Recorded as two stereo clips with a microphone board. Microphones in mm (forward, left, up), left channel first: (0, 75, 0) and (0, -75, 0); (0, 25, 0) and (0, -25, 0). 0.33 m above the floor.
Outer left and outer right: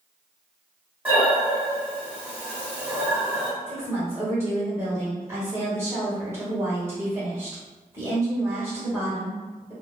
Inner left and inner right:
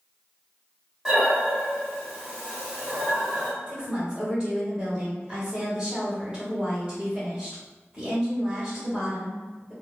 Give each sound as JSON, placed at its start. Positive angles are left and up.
{"t": 1.1, "sound": "breathing", "side_deg": -15, "distance_m": 1.6}
{"t": 3.7, "sound": "a woman speaking", "side_deg": -20, "distance_m": 1.3}